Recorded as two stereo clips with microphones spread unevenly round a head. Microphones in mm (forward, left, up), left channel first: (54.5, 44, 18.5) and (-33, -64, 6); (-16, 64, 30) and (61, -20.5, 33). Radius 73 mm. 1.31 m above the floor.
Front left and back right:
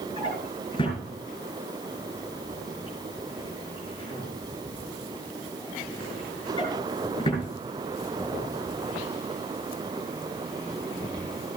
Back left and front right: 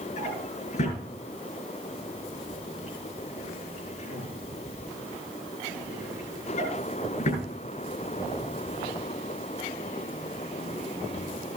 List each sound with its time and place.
0.2 s a drawer: 110° left, 7.5 m